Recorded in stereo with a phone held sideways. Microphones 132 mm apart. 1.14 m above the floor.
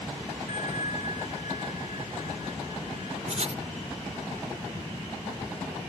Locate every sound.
0.5 s a bell: 70° left (ahead or behind)
3.3 s writing: 60° right (ahead or behind)